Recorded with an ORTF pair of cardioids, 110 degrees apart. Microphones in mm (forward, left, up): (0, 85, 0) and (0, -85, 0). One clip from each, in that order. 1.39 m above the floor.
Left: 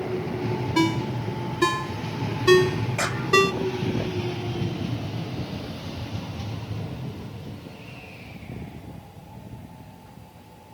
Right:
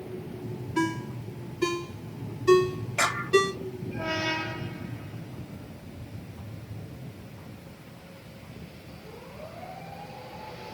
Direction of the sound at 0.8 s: 50° left.